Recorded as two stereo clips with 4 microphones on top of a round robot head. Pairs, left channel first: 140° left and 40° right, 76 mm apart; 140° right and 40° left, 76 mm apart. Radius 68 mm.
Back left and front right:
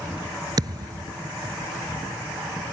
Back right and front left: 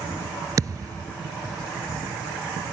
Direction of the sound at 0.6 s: 5° right.